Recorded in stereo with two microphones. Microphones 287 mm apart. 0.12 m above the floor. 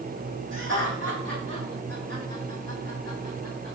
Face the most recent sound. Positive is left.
turn(degrees=-35)  # may be behind; listen again after turning